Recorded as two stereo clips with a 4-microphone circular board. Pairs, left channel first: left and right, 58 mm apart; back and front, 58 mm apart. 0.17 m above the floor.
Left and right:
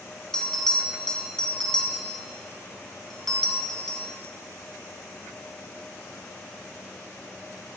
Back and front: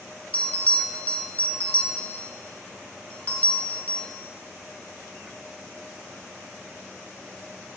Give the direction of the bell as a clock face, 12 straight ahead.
7 o'clock.